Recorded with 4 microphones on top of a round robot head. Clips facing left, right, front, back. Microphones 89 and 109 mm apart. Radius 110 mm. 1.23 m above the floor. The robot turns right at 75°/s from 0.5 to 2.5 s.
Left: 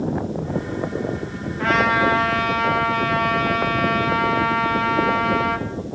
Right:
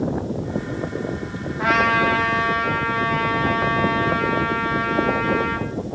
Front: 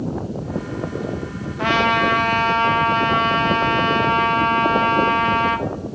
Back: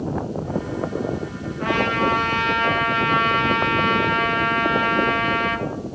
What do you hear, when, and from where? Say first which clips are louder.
1.6 s a trumpet: even, front 3 dB; 15° right, 2.5 m; by 5.7 s 55° left, 2.5 m